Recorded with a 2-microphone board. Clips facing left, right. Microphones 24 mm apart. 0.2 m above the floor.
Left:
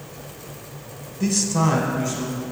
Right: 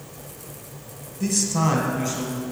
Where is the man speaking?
15° left (ahead or behind), 1.1 m; by 2.4 s 20° right (ahead or behind), 2.0 m.